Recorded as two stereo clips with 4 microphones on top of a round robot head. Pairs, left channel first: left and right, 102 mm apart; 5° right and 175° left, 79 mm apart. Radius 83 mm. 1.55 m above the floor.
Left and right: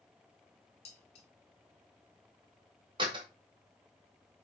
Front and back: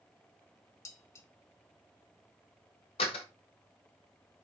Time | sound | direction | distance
0.8 | dishes clattering | 45° left | 1.4 m
3.0 | a door slam | 35° right | 1.3 m